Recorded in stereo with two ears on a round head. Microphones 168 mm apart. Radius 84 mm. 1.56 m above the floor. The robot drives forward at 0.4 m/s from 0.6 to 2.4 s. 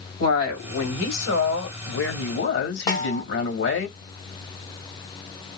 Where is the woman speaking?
85° left, 1.7 m; by 3.9 s 70° left (ahead or behind), 1.8 m.